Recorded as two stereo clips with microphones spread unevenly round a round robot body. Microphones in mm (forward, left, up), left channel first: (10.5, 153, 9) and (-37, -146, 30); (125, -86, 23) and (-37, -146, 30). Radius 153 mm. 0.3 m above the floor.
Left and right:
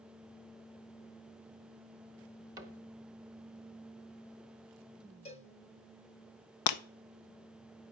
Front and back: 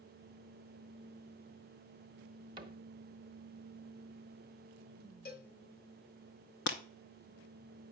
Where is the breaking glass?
55° left, 0.7 m.